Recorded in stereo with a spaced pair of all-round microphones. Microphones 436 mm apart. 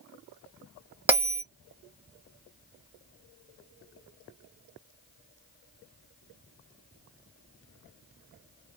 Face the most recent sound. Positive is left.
turn(degrees=-5)  # may be behind; listen again after turning